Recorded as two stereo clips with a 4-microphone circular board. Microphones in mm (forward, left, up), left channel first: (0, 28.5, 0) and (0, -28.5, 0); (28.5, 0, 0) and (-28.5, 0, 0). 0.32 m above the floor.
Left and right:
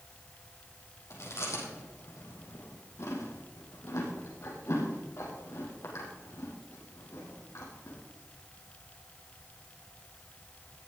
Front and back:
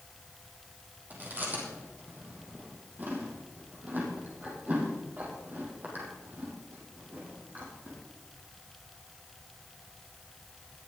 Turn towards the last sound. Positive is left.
turn(degrees=125)